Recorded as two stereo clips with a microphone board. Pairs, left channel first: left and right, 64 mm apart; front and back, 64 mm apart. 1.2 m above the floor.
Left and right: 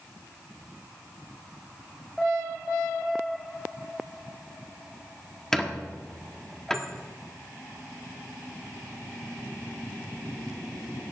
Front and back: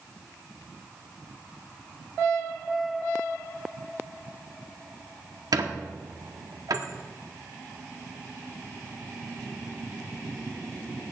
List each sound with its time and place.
5.5 s a squeak: 170° left, 1.5 m